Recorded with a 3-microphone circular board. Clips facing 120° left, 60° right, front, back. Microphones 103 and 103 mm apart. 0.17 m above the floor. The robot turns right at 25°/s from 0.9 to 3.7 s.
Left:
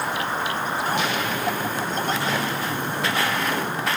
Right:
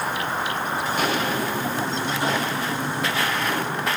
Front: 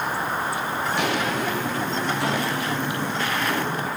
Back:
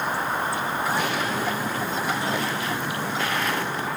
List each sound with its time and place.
0.9 s footsteps: 20° right, 4 m; by 3.9 s 45° left, 8 m